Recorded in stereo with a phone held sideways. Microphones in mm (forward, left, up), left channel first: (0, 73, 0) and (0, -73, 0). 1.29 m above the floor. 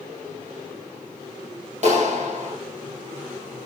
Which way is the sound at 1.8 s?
55° right (ahead or behind).